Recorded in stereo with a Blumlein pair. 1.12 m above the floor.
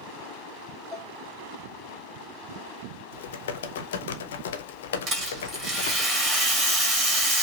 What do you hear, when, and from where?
0.9 s dishes clattering: 10° left, 0.8 m
3.1 s typing on a keyboard: 60° left, 0.6 m
5.1 s a rattle: 25° right, 2.5 m